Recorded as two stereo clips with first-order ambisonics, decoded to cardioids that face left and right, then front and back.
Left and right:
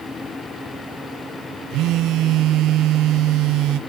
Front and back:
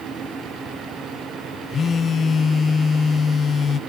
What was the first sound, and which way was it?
A phone buzzing, 65° right.